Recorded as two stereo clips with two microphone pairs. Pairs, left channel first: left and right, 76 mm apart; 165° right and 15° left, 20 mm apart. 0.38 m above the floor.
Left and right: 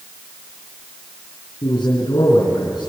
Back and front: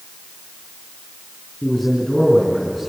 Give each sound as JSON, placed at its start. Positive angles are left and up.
{"t": 1.6, "sound": "a man speaking", "azimuth_deg": 105, "distance_m": 4.5}